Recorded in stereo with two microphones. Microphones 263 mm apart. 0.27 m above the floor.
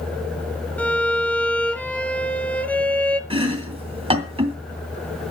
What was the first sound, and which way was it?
A violin, 5° left (ahead or behind).